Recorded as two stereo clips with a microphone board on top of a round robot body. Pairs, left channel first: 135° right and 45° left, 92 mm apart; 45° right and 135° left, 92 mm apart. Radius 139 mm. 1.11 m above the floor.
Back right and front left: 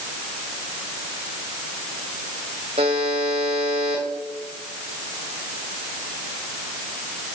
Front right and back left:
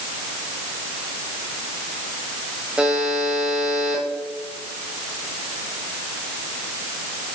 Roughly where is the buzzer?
Ahead left.